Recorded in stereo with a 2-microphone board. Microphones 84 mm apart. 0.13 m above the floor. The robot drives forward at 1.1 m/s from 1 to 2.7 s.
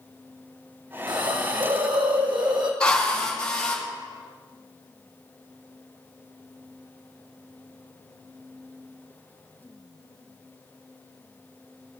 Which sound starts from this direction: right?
A hiss, at 1.1 s.